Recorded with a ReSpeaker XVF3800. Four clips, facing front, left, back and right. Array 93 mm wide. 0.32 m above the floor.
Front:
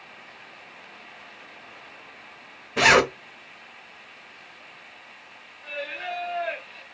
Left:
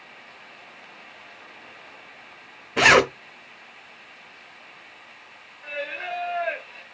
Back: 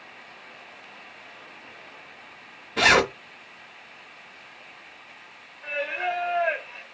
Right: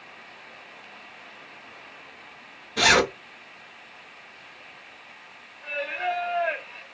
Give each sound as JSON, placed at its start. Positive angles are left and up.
{"t": 2.8, "sound": "a zipper", "azimuth_deg": 70, "distance_m": 0.6}
{"t": 5.6, "sound": "singing", "azimuth_deg": -170, "distance_m": 0.7}